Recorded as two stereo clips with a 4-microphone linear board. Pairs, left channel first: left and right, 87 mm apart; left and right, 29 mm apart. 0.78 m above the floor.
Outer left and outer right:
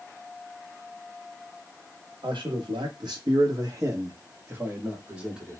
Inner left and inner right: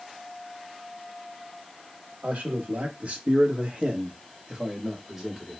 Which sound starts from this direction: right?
A man speaking, at 2.2 s.